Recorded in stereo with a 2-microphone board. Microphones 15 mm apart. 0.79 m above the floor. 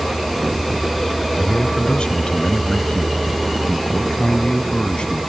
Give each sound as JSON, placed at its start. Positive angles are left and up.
{"t": 1.4, "sound": "a man speaking", "side_deg": 65}